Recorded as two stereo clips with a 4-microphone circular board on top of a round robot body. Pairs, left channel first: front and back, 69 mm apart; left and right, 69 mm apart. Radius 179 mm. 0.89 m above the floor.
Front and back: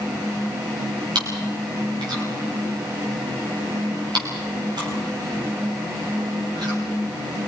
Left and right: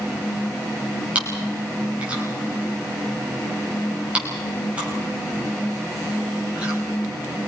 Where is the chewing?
165° right, 5 m.